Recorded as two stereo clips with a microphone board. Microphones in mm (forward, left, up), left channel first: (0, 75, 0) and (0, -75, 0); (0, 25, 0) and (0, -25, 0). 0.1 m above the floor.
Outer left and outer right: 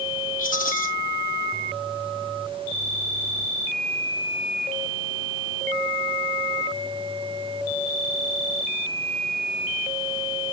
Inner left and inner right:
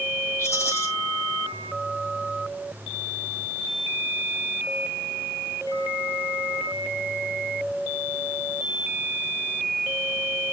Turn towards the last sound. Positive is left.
turn(degrees=65)  # may be behind; listen again after turning